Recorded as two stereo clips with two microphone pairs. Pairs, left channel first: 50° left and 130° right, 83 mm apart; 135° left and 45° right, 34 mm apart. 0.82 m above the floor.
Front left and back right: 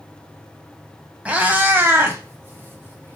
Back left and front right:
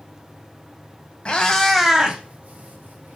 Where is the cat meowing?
175° left, 0.8 m; by 3.2 s 65° right, 1.3 m.